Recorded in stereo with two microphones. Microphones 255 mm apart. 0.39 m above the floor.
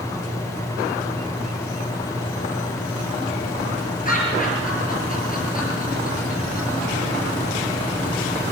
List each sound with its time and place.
4.0 s laughter: 35° left (ahead or behind), 6 m